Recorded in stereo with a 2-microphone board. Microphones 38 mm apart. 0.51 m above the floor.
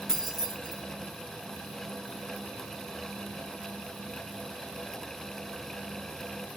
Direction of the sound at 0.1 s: 5° left (ahead or behind).